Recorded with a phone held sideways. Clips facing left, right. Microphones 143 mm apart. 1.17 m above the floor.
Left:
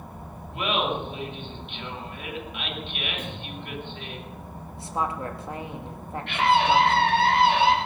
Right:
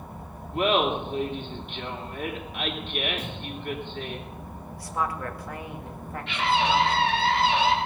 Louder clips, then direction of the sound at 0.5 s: Right 4 dB; 40° right (ahead or behind).